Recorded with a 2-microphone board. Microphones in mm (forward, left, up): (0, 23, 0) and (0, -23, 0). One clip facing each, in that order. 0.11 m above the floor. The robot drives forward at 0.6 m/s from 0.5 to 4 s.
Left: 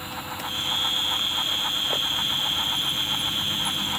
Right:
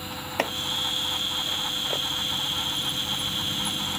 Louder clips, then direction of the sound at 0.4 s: Right 9 dB; 65° right (ahead or behind).